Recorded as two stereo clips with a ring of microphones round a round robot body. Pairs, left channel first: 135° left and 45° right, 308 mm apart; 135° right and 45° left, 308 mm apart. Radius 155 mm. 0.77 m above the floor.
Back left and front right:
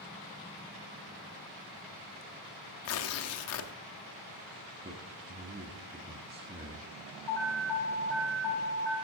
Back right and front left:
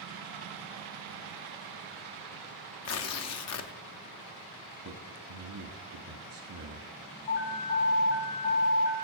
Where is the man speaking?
10° left, 1.5 m.